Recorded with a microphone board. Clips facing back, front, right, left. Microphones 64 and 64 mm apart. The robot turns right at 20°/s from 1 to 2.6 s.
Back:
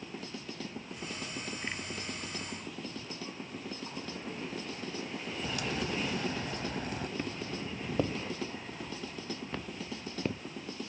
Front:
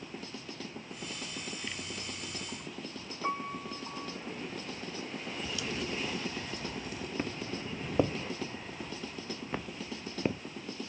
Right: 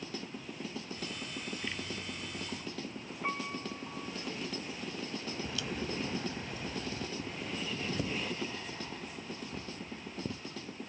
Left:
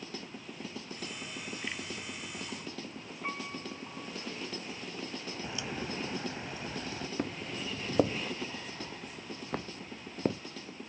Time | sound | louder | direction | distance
3.2 | a piano | front 12 dB, right 2 dB | 10° right | ?
5.4 | a crack | back 3 dB, left 2 dB | 155° left | ?
7.2 | footsteps | front 1 dB, left 2 dB | 70° left | ?